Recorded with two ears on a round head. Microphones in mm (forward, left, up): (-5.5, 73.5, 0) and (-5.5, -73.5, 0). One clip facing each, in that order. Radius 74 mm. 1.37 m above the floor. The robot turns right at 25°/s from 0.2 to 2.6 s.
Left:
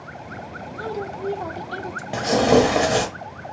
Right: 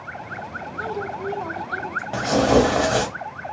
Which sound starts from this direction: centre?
Tearing paper, at 2.1 s.